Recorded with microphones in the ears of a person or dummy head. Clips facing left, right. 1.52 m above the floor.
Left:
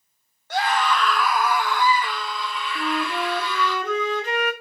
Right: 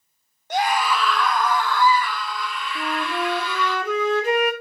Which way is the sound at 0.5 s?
20° right (ahead or behind).